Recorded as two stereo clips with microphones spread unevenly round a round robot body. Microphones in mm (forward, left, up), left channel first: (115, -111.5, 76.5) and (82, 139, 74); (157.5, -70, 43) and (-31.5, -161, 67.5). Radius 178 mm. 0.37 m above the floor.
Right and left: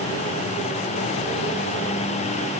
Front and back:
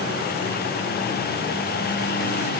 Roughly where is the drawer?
No drawer in this recording.